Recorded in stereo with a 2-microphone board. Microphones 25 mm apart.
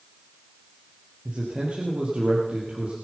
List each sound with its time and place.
1.2 s a man speaking: 60° right (ahead or behind), 3.5 m